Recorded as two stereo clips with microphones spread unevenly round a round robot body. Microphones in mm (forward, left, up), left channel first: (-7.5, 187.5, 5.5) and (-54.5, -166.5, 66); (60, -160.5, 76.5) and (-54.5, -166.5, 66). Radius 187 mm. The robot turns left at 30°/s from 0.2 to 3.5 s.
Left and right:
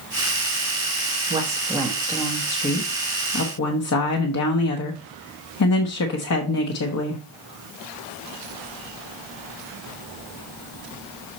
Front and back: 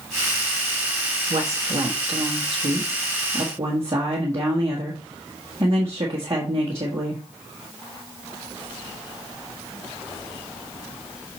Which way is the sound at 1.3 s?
175° right.